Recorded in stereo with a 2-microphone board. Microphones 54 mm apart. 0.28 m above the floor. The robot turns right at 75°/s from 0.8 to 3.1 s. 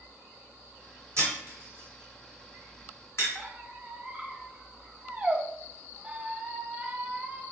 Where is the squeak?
25° right (ahead or behind), 0.5 m.